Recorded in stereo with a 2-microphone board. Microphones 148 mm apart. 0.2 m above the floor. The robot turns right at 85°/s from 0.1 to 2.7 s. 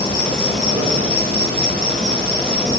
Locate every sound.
0.0 s an insect: 155° left, 0.9 m; by 2.8 s 15° left, 0.9 m